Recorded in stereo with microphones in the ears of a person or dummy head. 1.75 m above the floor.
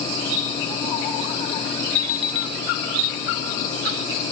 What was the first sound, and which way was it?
An alarm clock, 70° left (ahead or behind).